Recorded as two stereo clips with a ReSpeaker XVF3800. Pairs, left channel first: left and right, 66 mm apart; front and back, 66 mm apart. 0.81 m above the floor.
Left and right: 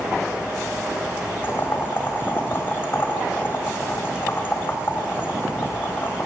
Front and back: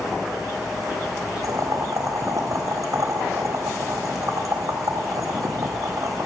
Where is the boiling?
150° left, 4 m.